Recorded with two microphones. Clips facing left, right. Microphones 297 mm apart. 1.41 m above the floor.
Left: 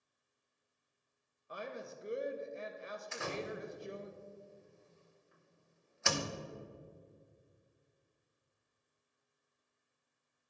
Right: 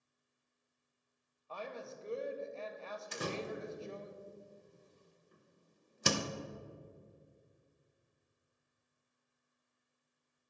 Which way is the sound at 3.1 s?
40° right (ahead or behind).